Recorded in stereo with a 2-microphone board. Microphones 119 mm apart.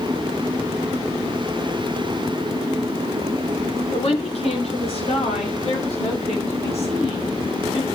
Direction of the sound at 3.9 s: 60° left (ahead or behind).